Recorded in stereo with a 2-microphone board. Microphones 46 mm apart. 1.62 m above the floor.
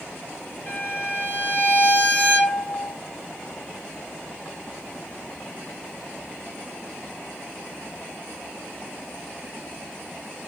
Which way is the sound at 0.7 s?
30° left (ahead or behind).